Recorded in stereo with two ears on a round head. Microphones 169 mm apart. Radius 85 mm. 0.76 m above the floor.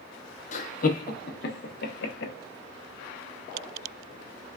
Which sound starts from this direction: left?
Laughter, at 0.5 s.